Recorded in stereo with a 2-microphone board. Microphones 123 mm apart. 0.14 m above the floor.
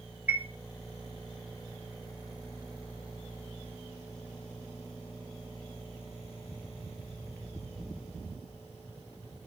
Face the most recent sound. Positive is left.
turn(degrees=-15)  # may be behind; listen again after turning